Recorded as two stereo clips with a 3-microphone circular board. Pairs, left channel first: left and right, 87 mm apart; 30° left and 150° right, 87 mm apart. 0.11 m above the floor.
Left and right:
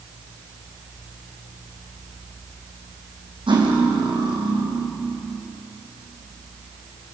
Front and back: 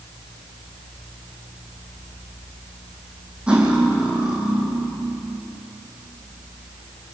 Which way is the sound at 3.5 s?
70° right.